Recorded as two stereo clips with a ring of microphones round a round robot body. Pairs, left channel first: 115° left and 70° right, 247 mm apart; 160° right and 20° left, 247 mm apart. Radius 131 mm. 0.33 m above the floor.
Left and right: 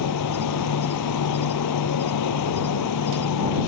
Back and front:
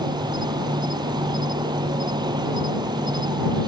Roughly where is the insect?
Left.